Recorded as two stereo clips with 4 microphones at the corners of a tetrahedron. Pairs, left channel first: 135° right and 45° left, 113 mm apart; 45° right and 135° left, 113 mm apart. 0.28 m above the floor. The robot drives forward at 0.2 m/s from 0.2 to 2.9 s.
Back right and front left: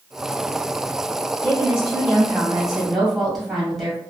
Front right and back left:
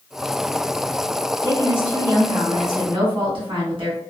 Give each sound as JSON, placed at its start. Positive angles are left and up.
{"t": 1.4, "sound": "a woman speaking", "azimuth_deg": 125, "distance_m": 1.5}